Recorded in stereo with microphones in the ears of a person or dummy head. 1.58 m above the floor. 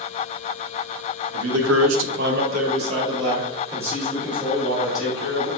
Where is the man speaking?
75° right (ahead or behind), 0.8 m; by 5.5 s 5° right (ahead or behind), 2 m.